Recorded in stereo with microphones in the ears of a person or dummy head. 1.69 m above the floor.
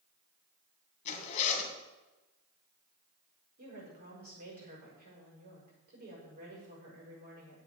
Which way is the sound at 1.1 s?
40° left (ahead or behind).